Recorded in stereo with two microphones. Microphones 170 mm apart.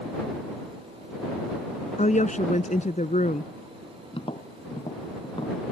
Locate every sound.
2.0 s a woman speaking: 50° left (ahead or behind)
4.1 s tapping: 35° left (ahead or behind)